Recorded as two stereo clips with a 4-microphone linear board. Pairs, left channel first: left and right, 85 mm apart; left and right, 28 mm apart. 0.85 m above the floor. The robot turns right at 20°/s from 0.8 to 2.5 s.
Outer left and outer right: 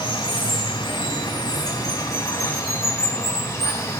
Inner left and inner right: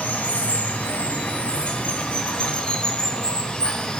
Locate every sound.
0.0 s running water: 115° left, 5.5 m; by 4.0 s 150° left, 5.5 m